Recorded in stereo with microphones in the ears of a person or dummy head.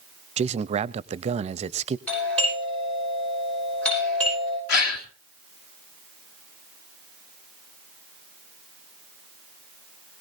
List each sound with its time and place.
0.4 s a man speaking: 35° right (ahead or behind), 0.6 m
2.1 s a doorbell: 5° left (ahead or behind), 10 m
4.7 s a gasp: 60° left (ahead or behind), 2.5 m